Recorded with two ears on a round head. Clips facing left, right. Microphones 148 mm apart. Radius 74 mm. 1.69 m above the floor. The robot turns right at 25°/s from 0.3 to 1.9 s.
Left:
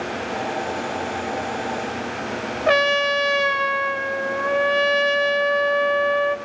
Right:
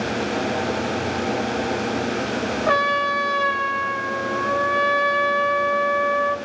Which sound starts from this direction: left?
A trumpet, at 2.7 s.